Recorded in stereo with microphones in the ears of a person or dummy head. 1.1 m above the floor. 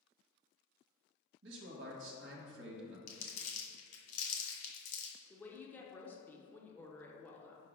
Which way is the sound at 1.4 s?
65° right (ahead or behind).